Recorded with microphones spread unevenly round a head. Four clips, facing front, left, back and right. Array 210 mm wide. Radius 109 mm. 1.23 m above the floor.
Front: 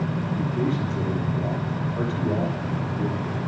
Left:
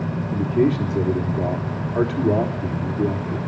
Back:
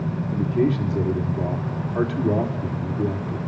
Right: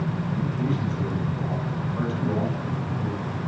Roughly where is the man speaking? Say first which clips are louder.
Left 11 dB, back 6 dB; left.